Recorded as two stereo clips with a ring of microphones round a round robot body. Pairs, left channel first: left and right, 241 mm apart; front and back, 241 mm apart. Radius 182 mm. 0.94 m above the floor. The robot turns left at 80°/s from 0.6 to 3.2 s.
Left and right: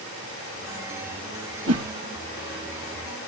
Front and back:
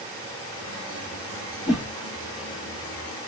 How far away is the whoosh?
About 1.5 m.